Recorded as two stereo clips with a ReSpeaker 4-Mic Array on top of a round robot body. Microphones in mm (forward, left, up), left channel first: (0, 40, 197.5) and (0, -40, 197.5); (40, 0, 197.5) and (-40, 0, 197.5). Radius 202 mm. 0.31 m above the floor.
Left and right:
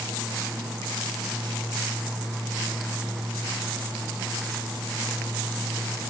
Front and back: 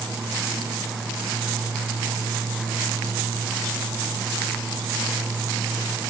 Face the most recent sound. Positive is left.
No sound to turn to.